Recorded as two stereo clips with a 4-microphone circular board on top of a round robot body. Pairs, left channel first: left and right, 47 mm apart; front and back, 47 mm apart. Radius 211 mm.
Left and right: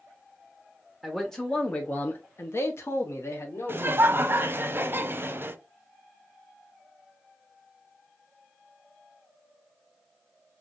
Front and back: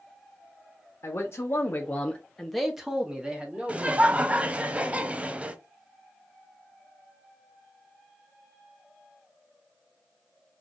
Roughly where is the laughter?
Behind right.